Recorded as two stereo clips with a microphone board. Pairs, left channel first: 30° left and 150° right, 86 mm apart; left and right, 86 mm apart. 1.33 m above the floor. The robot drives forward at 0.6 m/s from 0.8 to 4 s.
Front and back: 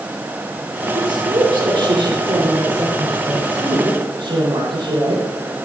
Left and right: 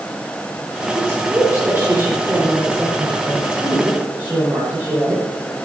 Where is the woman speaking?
150° right, 4 m; by 5.2 s 160° right, 5.5 m.